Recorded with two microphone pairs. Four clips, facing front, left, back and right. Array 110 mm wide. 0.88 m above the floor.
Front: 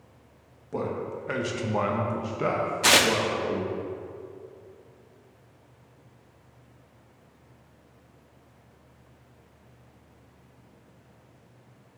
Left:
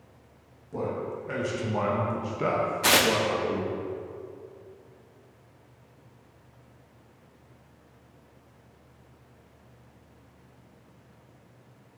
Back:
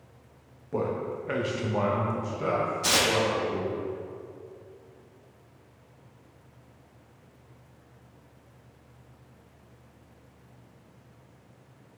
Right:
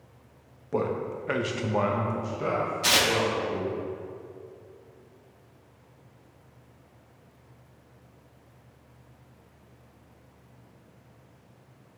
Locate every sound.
0.7 s a man speaking: 90° right, 1.2 m; by 3.7 s 60° left, 1.5 m
2.8 s tearing paper: 30° left, 0.6 m